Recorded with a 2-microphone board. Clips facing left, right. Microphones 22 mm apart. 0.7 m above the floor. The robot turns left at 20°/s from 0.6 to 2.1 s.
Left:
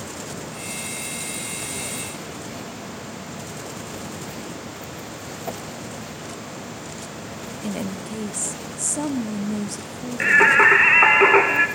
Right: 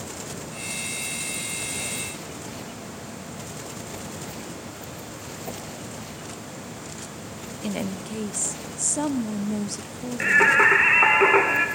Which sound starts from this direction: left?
A whoosh, at 5.5 s.